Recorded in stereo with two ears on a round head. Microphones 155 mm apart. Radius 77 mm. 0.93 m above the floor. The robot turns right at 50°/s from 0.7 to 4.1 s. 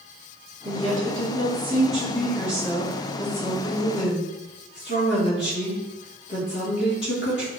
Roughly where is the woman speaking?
Right.